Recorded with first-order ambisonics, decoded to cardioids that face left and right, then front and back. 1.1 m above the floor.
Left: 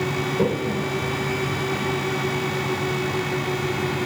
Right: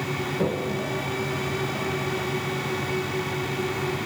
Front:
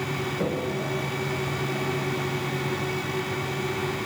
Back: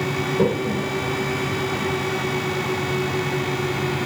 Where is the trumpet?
I don't hear a trumpet.